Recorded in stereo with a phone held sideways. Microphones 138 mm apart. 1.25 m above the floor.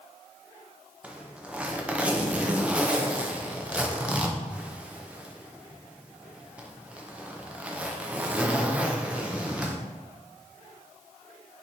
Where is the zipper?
10° right (ahead or behind), 0.5 m.